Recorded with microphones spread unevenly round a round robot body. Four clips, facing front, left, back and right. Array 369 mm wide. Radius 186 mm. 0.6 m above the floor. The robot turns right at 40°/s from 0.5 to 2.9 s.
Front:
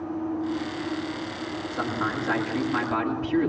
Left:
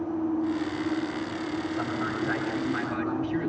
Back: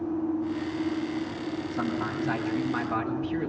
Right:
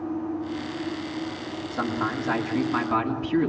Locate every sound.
1.7 s a man speaking: 135° right, 8 m; by 3.5 s 90° right, 8 m